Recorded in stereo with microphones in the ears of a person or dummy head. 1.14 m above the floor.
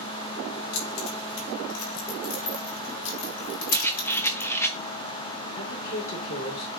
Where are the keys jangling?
70° left (ahead or behind), 4.5 m; by 4.5 s 50° left (ahead or behind), 1.5 m.